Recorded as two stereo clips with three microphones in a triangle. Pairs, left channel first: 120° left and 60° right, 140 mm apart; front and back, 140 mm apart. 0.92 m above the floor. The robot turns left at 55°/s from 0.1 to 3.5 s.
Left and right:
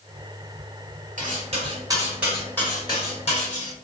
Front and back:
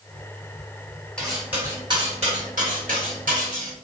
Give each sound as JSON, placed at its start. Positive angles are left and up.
{"t": 1.2, "sound": "cutlery clinking", "azimuth_deg": -85, "distance_m": 1.3}